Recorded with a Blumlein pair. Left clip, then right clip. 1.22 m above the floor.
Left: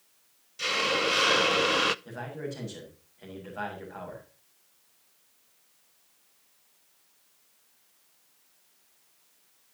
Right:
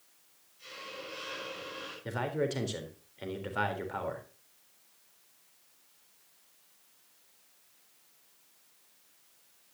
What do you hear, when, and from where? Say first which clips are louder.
0.6 s a hiss: left 18 dB; 45° left, 0.5 m
2.0 s a man speaking: right 5 dB; 60° right, 3.5 m